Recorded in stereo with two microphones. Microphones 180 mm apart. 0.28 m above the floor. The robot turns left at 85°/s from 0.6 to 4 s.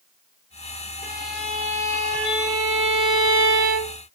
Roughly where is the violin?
Ahead left.